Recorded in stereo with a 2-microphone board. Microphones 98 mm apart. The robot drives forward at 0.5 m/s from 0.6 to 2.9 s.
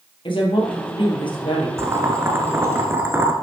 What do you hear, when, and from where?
0.2 s a woman speaking: 60° left (ahead or behind), 3.5 m
1.8 s boiling: 25° right (ahead or behind), 1.6 m